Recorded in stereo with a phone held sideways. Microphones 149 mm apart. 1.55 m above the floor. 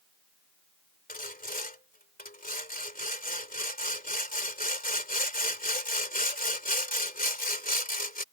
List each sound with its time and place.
1.1 s sawing: 70° left (ahead or behind)